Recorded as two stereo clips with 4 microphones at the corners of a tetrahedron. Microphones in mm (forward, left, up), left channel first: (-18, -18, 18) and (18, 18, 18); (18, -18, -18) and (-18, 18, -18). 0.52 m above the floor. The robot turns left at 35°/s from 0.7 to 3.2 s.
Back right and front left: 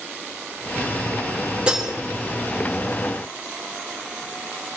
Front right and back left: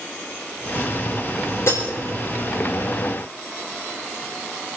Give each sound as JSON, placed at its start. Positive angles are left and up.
{"t": 1.7, "sound": "breaking glass", "azimuth_deg": -25, "distance_m": 4.5}